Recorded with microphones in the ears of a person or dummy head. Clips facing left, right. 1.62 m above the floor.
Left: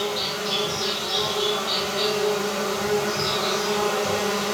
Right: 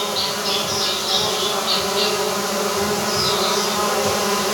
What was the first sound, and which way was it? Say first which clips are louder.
An insect: right 2 dB; 75° right (ahead or behind).